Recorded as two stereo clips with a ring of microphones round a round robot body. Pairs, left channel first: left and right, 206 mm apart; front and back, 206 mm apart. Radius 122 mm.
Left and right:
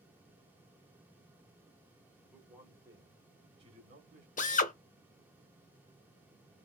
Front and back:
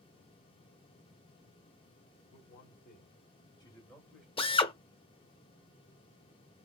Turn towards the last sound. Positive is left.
turn(degrees=55)